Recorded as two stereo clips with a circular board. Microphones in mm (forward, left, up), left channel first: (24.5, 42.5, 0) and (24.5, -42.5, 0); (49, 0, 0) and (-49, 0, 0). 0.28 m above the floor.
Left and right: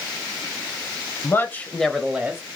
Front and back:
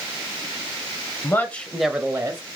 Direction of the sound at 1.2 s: 50° left.